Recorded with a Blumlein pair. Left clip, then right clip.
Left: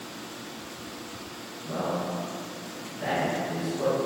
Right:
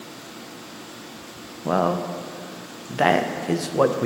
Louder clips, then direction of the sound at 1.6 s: Right 8 dB; 40° right.